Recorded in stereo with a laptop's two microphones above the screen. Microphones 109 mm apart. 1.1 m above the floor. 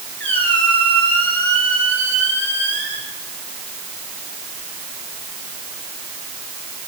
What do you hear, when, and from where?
0.2 s a squeak: 15° left (ahead or behind), 4.5 m